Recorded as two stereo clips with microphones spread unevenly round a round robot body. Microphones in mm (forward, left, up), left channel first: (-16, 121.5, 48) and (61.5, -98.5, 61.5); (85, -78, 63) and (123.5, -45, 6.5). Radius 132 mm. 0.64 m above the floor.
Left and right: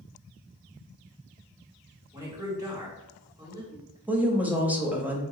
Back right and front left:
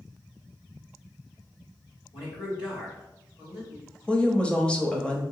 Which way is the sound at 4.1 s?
15° left.